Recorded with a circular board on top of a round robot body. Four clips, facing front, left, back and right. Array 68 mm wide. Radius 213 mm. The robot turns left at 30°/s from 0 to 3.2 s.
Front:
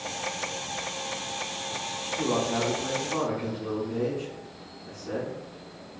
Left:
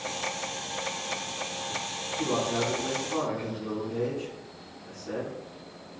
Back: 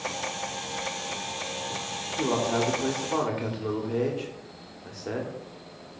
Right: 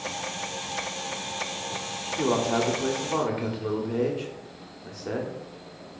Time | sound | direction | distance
2.2 | a man speaking | 105° right | 2.5 m